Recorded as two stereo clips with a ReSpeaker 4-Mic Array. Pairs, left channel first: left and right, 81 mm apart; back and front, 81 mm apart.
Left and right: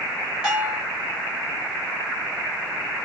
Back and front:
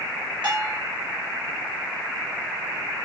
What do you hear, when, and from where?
0.4 s a bell: 10° right, 2.5 m